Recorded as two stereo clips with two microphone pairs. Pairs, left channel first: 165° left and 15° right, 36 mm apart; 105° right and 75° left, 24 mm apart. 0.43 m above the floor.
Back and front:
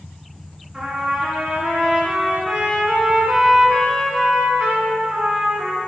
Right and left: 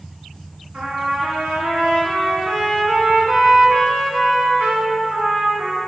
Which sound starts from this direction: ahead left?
A trumpet, at 0.7 s.